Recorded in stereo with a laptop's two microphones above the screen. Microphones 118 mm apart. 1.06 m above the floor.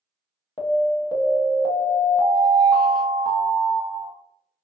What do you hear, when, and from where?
0.6 s an alarm: 40° left (ahead or behind), 0.6 m